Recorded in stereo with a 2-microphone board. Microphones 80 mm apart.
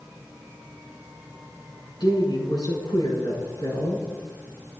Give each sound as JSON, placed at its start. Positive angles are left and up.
{"t": 2.0, "sound": "a woman speaking", "side_deg": 60, "distance_m": 5.5}